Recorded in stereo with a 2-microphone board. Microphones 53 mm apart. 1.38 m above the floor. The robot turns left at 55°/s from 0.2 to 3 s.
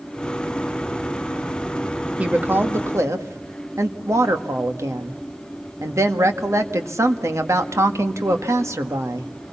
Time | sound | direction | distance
2.2 | a woman speaking | 25° right | 1.8 m